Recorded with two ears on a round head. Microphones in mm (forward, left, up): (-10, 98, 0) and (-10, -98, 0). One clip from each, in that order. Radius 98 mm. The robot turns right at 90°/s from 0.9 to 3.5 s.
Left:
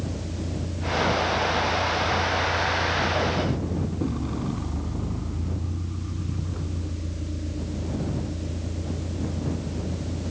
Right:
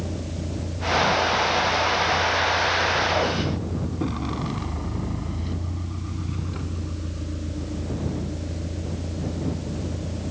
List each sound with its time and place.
0.0 s a vehicle: 45° right (ahead or behind); by 10.3 s 30° right (ahead or behind)